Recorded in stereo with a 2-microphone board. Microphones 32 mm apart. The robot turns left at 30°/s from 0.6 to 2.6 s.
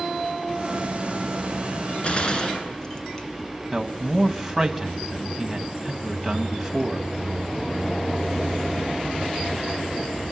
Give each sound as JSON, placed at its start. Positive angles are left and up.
{"t": 2.0, "sound": "a gunshot", "side_deg": 35, "distance_m": 2.5}
{"t": 3.7, "sound": "a man speaking", "side_deg": -5, "distance_m": 1.6}